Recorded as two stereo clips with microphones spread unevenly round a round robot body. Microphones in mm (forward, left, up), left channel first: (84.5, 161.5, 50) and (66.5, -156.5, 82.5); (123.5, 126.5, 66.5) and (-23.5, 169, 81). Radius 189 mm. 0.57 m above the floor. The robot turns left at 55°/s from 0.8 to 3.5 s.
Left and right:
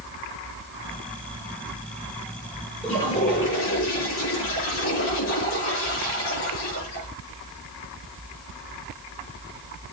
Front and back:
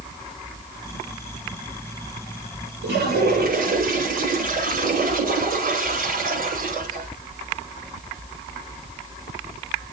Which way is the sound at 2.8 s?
Straight behind.